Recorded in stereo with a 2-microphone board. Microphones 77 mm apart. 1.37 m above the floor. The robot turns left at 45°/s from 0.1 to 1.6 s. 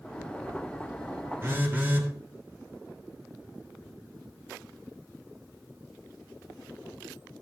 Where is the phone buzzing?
35° right (ahead or behind), 1.6 m; by 2.1 s 30° right (ahead or behind), 1.6 m.